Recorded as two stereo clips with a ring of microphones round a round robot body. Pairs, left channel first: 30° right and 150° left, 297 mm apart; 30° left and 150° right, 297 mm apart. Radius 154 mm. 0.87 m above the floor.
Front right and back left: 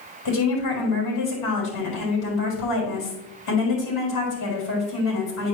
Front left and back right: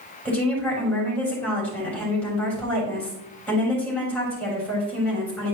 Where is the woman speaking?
60° right, 3.5 m.